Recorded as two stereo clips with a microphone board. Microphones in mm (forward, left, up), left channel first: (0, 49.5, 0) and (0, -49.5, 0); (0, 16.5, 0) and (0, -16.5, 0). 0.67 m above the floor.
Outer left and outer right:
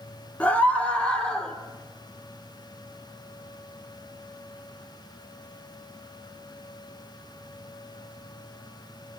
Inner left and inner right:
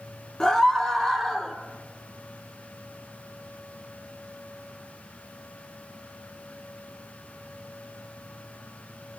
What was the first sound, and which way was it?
A scream, 15° left (ahead or behind).